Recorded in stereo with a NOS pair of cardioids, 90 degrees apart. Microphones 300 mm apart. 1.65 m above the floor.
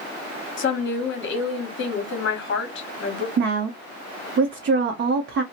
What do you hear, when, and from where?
0.6 s a woman speaking: 40° left, 1.1 m
3.4 s a woman speaking: 40° right, 0.6 m